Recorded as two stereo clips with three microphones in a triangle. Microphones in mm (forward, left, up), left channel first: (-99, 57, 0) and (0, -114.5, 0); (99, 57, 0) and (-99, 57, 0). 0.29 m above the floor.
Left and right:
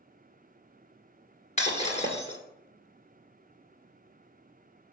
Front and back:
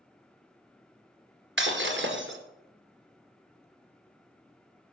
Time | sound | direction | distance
1.6 | breaking glass | 175° left | 1.7 m